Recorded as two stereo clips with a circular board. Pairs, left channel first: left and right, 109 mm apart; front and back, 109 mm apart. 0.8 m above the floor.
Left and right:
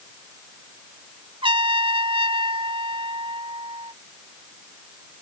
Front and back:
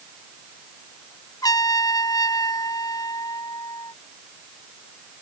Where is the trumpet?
55° right.